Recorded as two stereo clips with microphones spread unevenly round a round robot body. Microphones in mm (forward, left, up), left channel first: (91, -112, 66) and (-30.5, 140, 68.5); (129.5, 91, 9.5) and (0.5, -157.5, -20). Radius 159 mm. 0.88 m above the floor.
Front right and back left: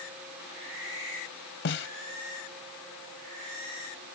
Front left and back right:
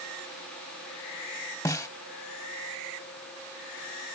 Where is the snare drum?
15° right.